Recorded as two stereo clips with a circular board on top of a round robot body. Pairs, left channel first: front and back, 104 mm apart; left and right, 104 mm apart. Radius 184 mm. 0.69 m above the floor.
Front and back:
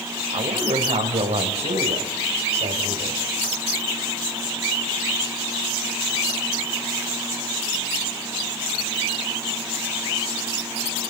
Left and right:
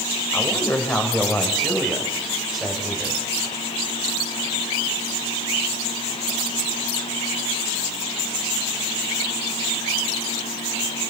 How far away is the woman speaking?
About 4.5 m.